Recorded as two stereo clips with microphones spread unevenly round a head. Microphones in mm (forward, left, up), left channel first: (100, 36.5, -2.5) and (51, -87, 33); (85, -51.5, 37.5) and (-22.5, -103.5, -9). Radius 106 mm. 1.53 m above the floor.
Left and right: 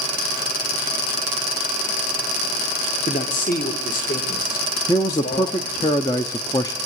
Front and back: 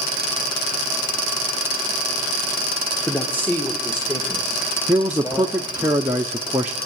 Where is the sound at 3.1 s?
110° left, 1.6 m; by 5.9 s 100° left, 4 m.